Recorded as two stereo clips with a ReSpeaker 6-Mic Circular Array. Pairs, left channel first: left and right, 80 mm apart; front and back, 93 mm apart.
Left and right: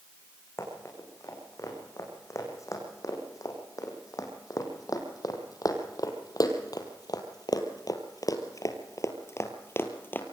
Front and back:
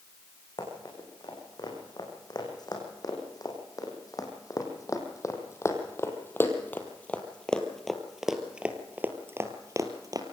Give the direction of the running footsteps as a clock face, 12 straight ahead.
11 o'clock.